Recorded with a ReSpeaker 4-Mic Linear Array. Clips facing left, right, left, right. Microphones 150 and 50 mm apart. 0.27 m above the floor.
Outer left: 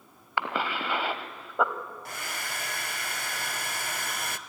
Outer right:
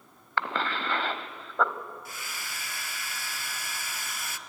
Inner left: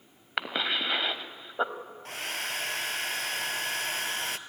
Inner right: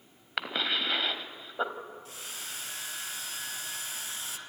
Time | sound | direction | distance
0.4 | a cough | 10° left (ahead or behind) | 1.2 m
2.0 | a hair dryer | 60° left (ahead or behind) | 0.8 m